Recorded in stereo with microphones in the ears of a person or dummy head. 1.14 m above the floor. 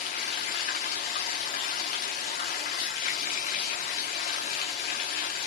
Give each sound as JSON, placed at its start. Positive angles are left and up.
{"t": 0.0, "sound": "running water", "side_deg": 35, "distance_m": 0.8}